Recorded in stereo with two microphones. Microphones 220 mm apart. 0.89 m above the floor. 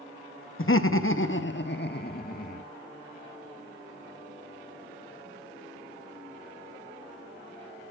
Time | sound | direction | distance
0.6 | laughter | 65° left (ahead or behind) | 0.9 m